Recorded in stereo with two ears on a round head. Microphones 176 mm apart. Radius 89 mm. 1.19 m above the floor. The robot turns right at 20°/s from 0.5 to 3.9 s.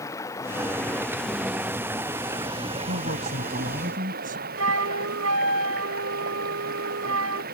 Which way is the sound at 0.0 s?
165° left.